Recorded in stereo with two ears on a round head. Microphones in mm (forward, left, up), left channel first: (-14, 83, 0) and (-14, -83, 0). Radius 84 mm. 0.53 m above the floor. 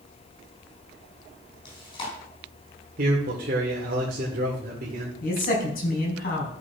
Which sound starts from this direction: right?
A man speaking, at 3.0 s.